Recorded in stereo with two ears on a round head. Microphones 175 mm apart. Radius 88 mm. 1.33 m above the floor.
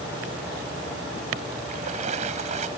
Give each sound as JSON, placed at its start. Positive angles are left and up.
{"t": 1.7, "sound": "a splash", "side_deg": -40}